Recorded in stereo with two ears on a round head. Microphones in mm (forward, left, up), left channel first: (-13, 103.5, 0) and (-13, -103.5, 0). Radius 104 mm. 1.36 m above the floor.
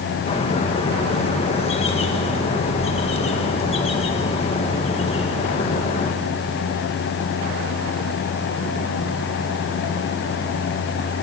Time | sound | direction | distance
0.3 | a bird | 25° left (ahead or behind) | 1.8 m